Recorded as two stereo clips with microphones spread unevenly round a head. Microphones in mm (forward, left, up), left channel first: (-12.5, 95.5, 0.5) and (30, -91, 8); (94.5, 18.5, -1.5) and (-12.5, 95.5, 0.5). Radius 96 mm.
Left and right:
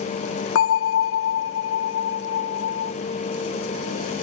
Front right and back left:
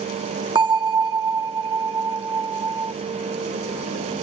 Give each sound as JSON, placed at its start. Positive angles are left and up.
{"t": 0.6, "sound": "a bell", "azimuth_deg": 90, "distance_m": 0.7}